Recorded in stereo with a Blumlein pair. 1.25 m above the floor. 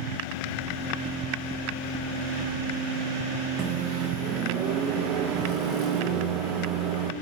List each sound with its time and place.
0.6 s knocking: 25° right, 2 m
3.6 s a microwave: 35° right, 1.1 m